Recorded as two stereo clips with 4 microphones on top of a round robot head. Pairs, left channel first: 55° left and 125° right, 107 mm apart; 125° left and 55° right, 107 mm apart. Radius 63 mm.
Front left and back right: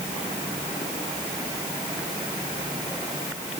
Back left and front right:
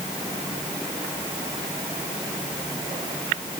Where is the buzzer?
I don't hear a buzzer.